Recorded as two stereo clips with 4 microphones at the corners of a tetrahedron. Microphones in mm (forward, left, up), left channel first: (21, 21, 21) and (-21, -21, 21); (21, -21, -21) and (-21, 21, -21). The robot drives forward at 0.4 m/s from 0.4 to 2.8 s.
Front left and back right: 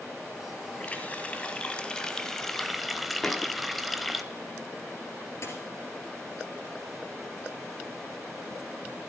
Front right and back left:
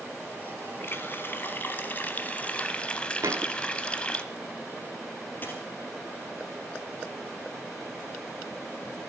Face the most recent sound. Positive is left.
turn(degrees=10)